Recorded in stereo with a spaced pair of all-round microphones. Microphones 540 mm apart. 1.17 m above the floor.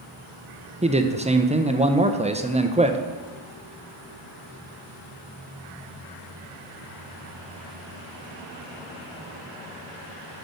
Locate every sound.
0.8 s a man speaking: 15° right (ahead or behind), 0.5 m